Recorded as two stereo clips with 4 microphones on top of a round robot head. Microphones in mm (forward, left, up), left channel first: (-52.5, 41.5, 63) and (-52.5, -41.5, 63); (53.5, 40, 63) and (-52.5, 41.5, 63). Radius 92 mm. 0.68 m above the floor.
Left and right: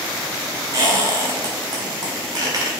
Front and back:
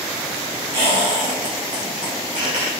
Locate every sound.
0.7 s a squeak: 130° right, 1.0 m